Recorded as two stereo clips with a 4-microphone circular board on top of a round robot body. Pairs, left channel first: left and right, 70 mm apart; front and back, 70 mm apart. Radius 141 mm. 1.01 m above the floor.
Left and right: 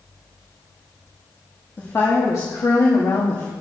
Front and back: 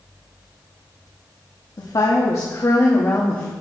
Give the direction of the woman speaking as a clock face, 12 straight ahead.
11 o'clock.